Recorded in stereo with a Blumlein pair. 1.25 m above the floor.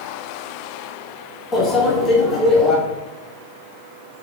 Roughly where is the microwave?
Ahead.